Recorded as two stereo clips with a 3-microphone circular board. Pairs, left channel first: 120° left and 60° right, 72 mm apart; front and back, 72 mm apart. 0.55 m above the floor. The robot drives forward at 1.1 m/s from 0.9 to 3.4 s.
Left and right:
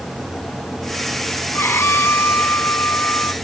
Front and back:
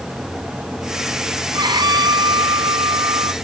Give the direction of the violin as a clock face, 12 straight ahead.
6 o'clock.